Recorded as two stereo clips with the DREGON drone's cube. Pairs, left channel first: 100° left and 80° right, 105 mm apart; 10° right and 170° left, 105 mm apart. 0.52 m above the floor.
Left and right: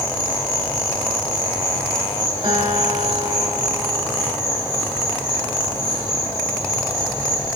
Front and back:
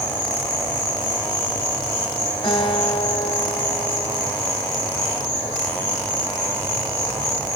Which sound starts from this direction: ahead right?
A guitar, at 2.4 s.